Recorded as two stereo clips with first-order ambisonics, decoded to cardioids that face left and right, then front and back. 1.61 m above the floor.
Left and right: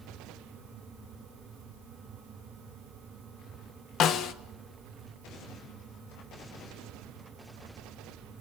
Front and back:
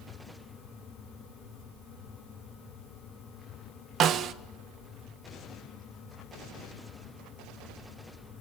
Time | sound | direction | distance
4.0 | a snare drum | 130° left | 1.0 m